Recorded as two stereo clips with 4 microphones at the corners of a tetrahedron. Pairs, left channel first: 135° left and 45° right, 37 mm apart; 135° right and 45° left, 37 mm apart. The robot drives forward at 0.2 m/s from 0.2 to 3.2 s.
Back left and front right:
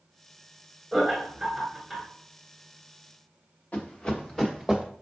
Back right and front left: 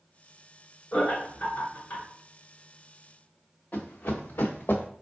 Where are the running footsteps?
175° right, 1.0 m; by 4.9 s 125° right, 1.0 m.